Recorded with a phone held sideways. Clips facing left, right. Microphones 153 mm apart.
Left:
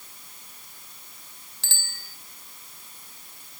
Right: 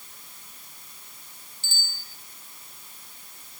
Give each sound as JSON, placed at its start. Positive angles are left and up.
{"t": 1.6, "sound": "a bicycle bell", "side_deg": 85, "distance_m": 2.5}